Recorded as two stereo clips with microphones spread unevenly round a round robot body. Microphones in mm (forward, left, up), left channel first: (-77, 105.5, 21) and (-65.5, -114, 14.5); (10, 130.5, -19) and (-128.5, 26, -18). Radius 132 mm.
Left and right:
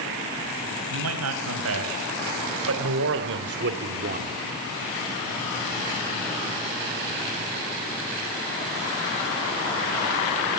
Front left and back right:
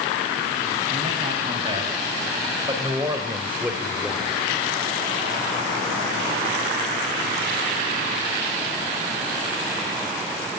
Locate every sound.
0.9 s a man speaking: 75° right, 5 m; by 4.3 s 45° right, 1.7 m